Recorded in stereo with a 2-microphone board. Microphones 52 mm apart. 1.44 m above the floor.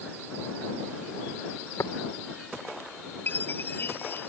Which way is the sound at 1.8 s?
85° left.